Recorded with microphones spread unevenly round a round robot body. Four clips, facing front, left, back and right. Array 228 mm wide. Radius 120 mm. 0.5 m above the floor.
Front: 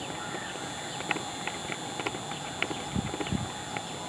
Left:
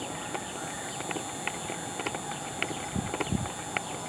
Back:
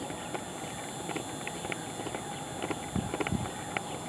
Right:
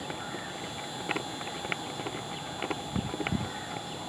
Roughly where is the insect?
Behind.